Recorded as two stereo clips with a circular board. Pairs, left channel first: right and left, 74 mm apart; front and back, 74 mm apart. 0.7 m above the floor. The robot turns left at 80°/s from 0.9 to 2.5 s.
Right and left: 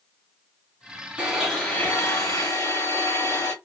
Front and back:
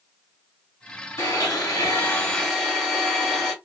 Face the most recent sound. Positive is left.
turn(degrees=-85)